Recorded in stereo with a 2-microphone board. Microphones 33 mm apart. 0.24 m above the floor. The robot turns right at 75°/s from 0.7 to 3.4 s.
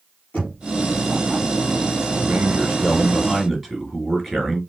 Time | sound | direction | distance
0.3 | knocking | 55° left (ahead or behind) | 4 m
2.2 | a man speaking | 100° right | 3.5 m